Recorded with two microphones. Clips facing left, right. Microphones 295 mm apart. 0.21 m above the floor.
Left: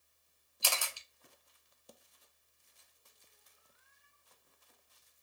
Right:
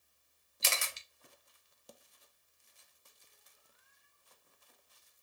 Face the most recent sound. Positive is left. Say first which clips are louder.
# even
turn(degrees=-25)  # may be behind; listen again after turning